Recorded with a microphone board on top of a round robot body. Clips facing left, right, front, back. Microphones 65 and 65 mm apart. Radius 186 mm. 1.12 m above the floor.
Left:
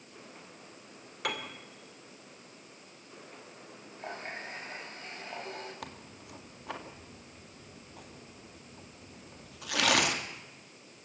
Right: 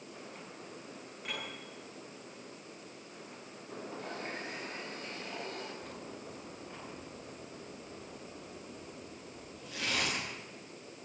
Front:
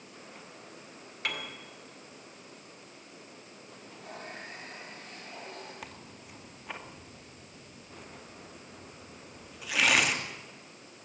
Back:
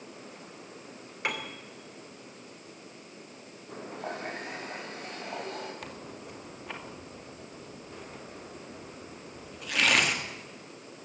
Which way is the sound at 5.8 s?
85° left.